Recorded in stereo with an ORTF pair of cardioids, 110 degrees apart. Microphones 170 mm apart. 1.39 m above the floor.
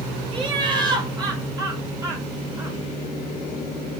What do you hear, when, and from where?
0.3 s laughter: 30° right, 4 m; by 2.8 s 15° right, 4.5 m